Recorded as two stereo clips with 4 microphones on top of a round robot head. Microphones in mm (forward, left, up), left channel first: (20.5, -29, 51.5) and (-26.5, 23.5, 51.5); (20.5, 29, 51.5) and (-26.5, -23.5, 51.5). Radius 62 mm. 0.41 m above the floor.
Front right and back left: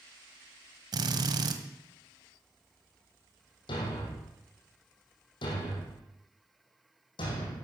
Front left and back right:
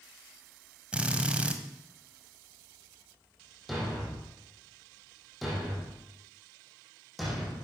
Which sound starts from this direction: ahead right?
A thud, at 3.7 s.